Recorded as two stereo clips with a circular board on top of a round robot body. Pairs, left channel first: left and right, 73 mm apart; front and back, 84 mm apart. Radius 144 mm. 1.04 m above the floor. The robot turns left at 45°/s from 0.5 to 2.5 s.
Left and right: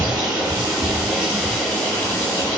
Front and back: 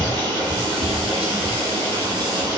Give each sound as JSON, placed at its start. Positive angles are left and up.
{"t": 0.0, "sound": "running water", "azimuth_deg": -135, "distance_m": 3.0}